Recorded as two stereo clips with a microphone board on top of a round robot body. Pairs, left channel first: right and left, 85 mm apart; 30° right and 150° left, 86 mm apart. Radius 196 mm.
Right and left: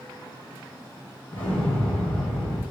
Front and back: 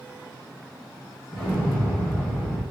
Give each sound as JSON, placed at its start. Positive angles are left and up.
{"t": 1.3, "sound": "an explosion", "azimuth_deg": -105, "distance_m": 1.1}